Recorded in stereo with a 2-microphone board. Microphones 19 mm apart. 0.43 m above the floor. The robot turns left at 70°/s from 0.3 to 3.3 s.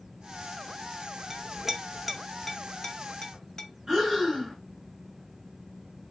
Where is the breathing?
30° right (ahead or behind), 1.9 m.